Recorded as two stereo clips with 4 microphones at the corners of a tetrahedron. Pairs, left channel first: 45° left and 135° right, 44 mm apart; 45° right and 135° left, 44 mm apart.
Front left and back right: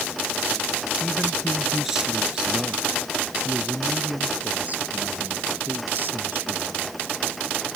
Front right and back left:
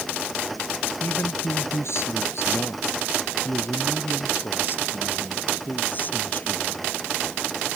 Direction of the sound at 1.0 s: 45° right.